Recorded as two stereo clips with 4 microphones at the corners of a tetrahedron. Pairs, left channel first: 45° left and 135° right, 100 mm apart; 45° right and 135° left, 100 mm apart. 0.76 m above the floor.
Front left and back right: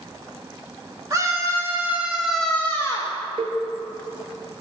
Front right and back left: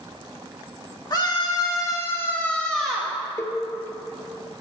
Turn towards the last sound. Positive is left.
turn(degrees=-110)